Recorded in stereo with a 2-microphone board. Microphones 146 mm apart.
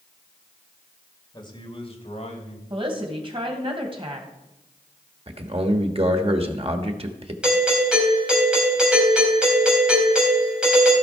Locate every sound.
1.3 s a man speaking: 30° left (ahead or behind), 2 m; by 2.6 s 55° left (ahead or behind), 3 m
2.7 s a woman speaking: 35° right (ahead or behind), 2.5 m
5.3 s a man speaking: 45° right (ahead or behind), 1.2 m
7.4 s a doorbell: 5° right (ahead or behind), 3 m